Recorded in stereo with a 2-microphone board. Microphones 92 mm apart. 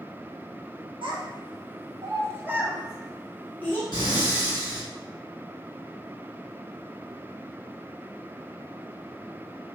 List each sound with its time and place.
1.0 s a child speaking: 65° right (ahead or behind), 1.1 m; by 3.8 s 20° left (ahead or behind), 1.0 m
3.9 s breathing: 50° left (ahead or behind), 1.6 m